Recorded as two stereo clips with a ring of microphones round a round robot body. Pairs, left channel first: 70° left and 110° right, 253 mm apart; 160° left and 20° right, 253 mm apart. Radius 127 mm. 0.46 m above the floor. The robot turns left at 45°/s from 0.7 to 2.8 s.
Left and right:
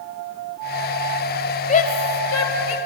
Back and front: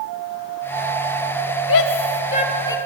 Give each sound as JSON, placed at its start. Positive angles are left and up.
{"t": 1.7, "sound": "a shout", "azimuth_deg": 130, "distance_m": 2.5}